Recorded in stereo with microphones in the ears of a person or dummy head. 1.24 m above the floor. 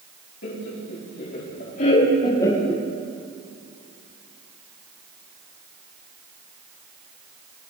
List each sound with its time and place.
0.4 s laughter: 65° left (ahead or behind), 3 m; by 2.8 s 5° right (ahead or behind), 1.1 m